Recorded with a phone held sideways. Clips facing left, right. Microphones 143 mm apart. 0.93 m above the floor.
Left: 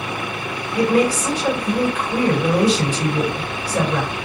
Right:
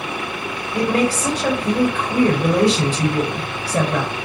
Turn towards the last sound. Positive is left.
turn(degrees=-70)  # may be behind; listen again after turning